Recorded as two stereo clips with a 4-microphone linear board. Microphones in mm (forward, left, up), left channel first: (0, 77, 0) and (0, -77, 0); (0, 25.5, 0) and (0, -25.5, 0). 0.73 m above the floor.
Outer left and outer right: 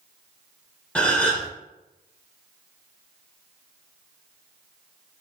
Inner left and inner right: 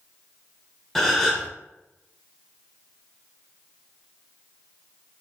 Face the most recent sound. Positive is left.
turn(degrees=5)  # may be behind; listen again after turning